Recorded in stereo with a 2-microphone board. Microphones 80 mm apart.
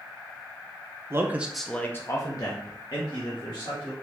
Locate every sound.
1.1 s a man speaking: 35° right (ahead or behind), 0.7 m; by 3.9 s 75° left (ahead or behind), 2 m